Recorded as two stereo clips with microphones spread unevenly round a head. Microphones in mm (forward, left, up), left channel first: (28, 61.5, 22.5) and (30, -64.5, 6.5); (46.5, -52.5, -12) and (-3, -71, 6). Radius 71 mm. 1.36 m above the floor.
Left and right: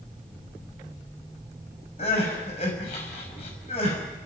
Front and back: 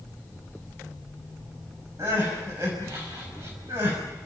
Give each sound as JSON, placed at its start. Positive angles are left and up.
{"t": 2.0, "sound": "crying", "azimuth_deg": 140, "distance_m": 6.0}